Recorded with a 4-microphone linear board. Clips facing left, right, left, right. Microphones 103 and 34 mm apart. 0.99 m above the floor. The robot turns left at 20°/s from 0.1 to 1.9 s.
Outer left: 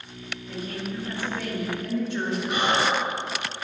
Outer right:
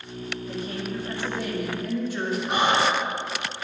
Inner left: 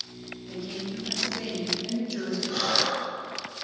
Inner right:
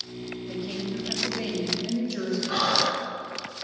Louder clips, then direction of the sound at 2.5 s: Outer right 2 dB, inner right 2 dB; 35° right (ahead or behind).